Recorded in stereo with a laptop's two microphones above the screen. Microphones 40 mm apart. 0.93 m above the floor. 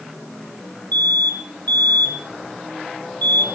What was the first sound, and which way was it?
An alarm, 65° left (ahead or behind).